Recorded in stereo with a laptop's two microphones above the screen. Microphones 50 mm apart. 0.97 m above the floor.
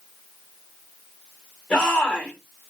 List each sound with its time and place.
1.7 s a shout: 20° left (ahead or behind), 3 m